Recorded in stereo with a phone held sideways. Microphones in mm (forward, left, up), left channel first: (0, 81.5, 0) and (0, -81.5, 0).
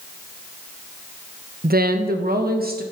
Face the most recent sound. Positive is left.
turn(degrees=-70)  # may be behind; listen again after turning